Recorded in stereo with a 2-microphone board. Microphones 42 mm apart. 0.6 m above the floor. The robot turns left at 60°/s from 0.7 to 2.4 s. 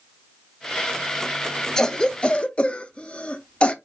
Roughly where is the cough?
Centre.